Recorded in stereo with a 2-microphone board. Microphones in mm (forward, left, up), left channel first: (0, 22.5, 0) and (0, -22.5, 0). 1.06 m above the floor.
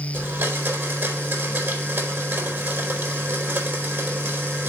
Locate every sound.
0.1 s a blender: 55° right (ahead or behind), 3.5 m